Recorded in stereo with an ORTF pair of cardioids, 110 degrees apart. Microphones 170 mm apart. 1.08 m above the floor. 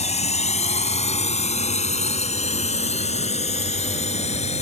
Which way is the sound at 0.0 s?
40° left.